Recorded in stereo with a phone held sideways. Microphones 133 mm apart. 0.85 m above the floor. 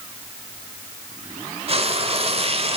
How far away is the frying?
About 0.9 m.